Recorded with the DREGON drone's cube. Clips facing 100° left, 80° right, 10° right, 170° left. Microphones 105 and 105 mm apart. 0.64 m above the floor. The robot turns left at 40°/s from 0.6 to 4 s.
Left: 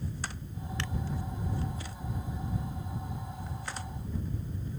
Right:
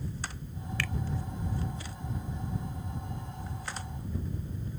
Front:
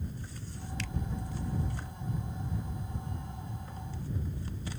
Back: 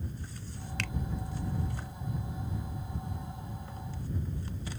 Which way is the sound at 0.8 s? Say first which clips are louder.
Right 2 dB, back 3 dB; 165° left.